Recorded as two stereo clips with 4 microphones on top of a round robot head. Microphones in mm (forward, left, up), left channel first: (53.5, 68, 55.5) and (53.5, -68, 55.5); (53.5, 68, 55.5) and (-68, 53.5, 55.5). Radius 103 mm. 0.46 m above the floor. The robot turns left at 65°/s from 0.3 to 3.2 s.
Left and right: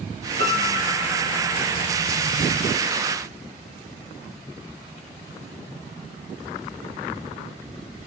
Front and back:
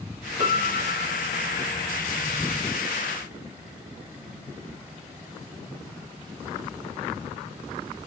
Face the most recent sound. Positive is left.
turn(degrees=65)